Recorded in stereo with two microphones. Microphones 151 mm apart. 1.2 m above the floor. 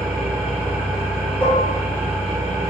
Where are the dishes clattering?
10° left (ahead or behind), 1.1 m.